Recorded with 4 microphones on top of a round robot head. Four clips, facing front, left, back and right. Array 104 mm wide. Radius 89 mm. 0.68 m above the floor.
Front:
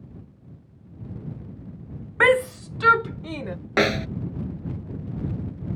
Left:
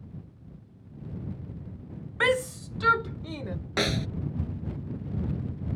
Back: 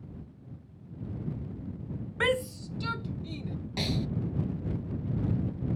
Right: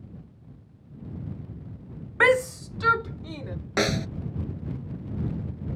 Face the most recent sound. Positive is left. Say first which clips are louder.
# right 3 dB, front 11 dB
turn(degrees=-15)